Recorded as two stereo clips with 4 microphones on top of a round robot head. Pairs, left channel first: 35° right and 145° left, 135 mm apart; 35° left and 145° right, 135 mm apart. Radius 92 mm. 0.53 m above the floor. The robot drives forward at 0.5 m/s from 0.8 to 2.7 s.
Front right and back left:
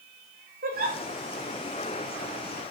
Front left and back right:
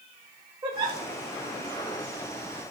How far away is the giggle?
About 6 m.